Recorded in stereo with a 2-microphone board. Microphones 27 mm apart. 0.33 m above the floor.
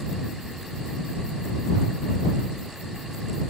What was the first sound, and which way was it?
Only background noise.